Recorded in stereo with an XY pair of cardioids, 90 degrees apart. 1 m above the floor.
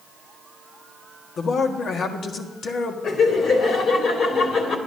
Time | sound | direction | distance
1.4 | a man speaking | 60° left | 1.5 m
3.0 | laughter | 70° left | 2.5 m